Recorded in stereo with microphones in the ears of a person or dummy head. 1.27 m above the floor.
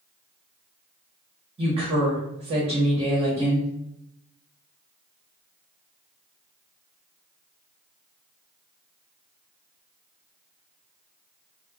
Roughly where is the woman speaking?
Right.